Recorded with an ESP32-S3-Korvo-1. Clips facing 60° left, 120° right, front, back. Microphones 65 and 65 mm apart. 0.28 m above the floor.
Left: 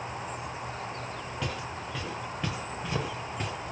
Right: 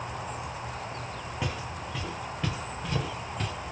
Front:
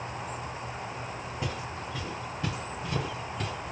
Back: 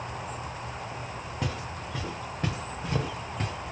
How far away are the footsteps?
About 2 m.